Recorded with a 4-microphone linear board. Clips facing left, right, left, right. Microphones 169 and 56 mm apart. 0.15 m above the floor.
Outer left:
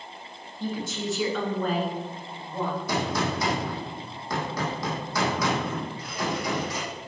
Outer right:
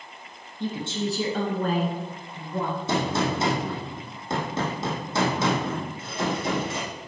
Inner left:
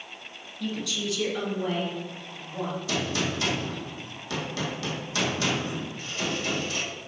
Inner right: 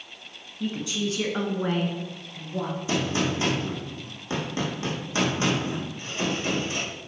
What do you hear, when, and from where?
0.6 s a woman speaking: 20° right (ahead or behind), 1.2 m; by 2.8 s 60° right (ahead or behind), 2 m
2.9 s a gunshot: 25° right (ahead or behind), 1.8 m